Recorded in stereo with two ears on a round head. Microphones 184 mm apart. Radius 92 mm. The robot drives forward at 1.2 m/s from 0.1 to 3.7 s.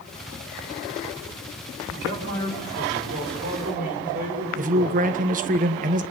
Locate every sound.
1.9 s a man speaking: 65° right (ahead or behind), 5.5 m; by 5.0 s 45° right (ahead or behind), 6.5 m
4.6 s a man speaking: 40° right (ahead or behind), 1.3 m